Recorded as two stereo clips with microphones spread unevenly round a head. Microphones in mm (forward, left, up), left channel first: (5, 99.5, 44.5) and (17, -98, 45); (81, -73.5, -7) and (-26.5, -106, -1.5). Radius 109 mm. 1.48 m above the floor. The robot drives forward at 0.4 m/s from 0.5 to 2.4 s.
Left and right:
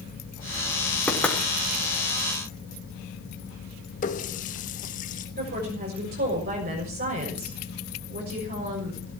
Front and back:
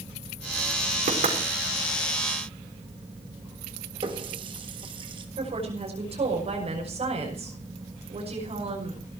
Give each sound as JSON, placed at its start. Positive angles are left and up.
{"t": 1.1, "sound": "knocking", "azimuth_deg": 180, "distance_m": 3.5}
{"t": 4.0, "sound": "a running tap", "azimuth_deg": 145, "distance_m": 1.2}
{"t": 5.4, "sound": "a woman speaking", "azimuth_deg": -135, "distance_m": 6.0}